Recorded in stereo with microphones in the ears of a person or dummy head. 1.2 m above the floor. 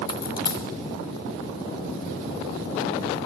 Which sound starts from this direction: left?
A dropped coin, at 0.1 s.